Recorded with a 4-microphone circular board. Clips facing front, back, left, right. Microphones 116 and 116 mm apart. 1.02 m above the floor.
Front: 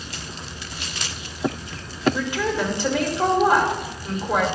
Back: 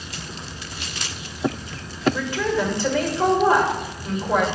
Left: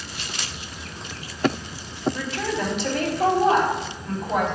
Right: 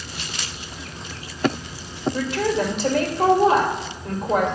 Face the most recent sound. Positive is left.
turn(degrees=-75)